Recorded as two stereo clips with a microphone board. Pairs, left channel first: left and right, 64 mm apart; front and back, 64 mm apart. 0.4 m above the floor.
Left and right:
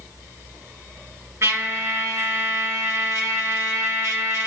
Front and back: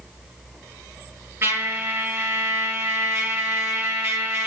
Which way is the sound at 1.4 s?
130° right.